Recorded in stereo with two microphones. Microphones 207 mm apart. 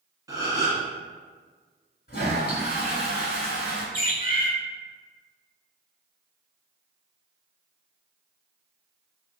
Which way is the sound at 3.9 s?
45° left (ahead or behind).